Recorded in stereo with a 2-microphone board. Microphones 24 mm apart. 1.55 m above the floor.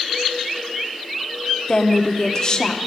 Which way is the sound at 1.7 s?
30° left (ahead or behind).